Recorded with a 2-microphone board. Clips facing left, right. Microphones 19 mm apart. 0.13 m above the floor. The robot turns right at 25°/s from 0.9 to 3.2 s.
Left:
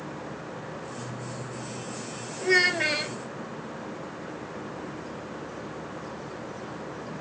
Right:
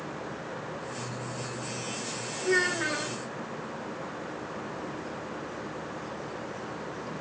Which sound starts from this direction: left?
A child speaking, at 2.4 s.